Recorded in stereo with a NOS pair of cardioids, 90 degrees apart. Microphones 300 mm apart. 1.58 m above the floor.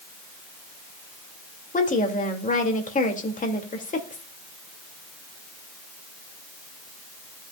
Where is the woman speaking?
25° left, 2.5 m.